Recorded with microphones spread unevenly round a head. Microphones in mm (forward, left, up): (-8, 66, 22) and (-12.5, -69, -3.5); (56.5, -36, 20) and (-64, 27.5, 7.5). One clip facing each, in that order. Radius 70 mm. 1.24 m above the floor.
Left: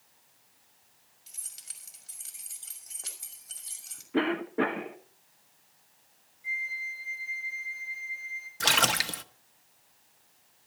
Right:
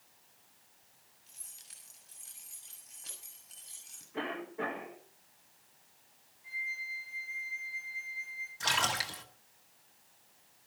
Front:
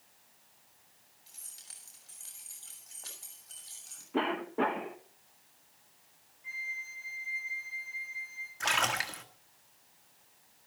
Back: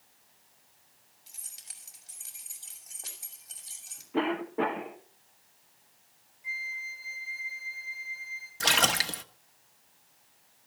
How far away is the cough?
About 1.6 m.